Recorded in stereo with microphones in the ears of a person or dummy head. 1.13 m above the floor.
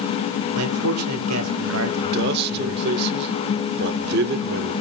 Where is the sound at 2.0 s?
55° right (ahead or behind), 1.2 m.